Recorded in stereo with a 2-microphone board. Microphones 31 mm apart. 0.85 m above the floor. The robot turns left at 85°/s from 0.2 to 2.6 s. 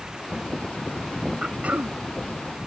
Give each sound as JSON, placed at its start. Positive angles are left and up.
{"t": 1.4, "sound": "throat clearing", "azimuth_deg": -35}